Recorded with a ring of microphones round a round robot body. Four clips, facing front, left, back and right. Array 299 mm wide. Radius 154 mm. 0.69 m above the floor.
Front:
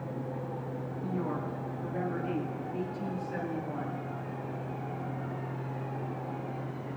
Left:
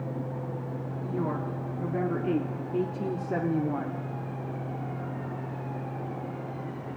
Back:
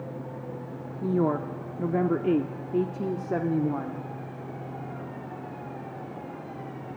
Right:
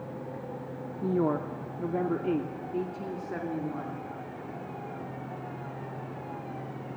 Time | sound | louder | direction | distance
1.0 | a woman speaking | right 5 dB, back 10 dB | 150° right | 1.5 m